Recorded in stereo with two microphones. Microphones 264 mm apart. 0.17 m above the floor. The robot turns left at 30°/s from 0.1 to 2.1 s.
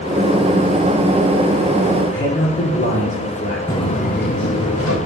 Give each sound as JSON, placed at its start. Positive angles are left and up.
{"t": 2.1, "sound": "a man speaking", "side_deg": 35, "distance_m": 1.3}
{"t": 3.7, "sound": "footsteps", "side_deg": 10, "distance_m": 0.9}